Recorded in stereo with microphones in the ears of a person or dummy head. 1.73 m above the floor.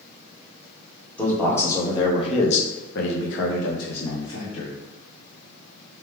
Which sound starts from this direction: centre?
A man speaking, at 1.2 s.